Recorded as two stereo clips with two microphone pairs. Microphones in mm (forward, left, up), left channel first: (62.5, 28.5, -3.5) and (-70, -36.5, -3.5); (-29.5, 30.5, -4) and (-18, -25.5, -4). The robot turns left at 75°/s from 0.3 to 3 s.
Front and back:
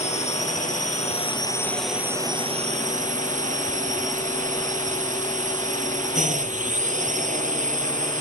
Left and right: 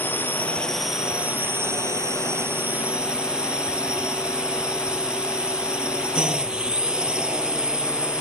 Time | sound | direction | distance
0.0 | a drone | 50° left | ?